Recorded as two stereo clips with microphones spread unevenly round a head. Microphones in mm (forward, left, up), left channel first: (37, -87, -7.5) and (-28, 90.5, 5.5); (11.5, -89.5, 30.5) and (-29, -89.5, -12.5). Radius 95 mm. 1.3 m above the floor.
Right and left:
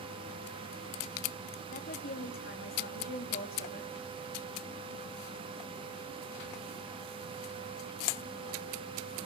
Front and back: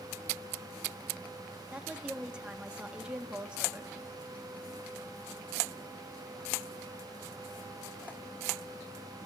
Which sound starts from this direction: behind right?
A woman speaking, at 1.7 s.